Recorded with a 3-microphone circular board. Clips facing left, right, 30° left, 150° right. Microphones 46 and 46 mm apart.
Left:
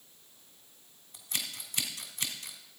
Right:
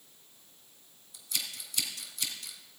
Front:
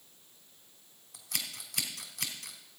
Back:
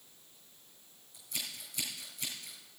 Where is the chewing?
I don't hear chewing.